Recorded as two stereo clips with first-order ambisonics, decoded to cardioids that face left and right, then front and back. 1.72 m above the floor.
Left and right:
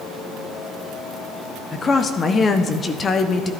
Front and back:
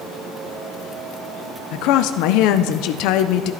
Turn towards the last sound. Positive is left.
turn(degrees=20)